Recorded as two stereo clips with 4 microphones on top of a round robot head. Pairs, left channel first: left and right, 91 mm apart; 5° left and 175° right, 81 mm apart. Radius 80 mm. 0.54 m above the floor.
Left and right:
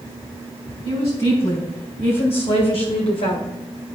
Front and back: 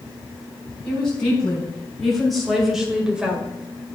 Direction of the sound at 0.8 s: 85° left.